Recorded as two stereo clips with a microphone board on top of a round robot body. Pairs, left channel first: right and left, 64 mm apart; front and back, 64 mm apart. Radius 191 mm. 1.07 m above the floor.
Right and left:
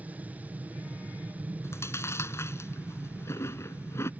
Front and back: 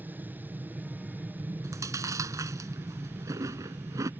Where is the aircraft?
140° left.